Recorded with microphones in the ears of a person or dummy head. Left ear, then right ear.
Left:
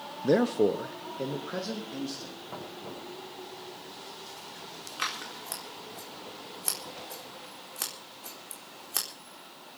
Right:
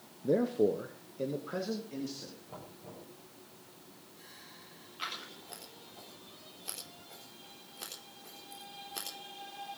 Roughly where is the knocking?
Left.